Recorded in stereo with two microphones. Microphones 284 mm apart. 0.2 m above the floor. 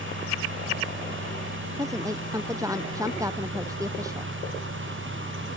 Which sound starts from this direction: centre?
A woman speaking, at 1.8 s.